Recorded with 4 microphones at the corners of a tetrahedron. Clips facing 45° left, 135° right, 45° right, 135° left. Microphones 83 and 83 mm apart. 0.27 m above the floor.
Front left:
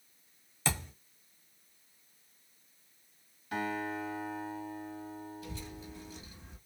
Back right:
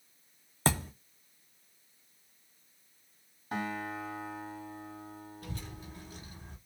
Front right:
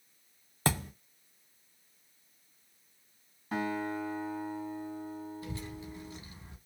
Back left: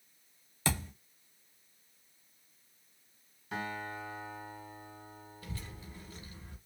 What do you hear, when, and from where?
0.7 s a thud: 90° right, 0.9 m
3.5 s a guitar: 90° right, 2 m
5.4 s a child speaking: 110° right, 1.0 m